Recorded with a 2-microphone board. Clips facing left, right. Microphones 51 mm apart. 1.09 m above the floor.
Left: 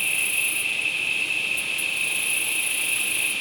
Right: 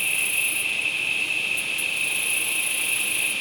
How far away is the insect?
About 0.9 m.